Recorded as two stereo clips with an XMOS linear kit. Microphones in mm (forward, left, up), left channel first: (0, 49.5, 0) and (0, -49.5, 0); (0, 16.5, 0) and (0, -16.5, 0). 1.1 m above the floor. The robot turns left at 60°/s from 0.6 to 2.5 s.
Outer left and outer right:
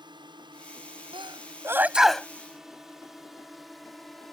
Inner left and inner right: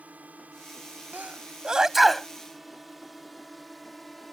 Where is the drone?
50° right (ahead or behind); by 4.3 s centre (ahead or behind).